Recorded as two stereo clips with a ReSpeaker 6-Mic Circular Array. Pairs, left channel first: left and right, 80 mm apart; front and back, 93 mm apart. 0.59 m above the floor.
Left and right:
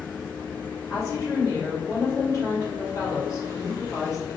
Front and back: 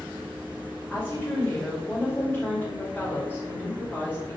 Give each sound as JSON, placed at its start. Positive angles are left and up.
{"t": 0.9, "sound": "a woman speaking", "azimuth_deg": 65, "distance_m": 1.9}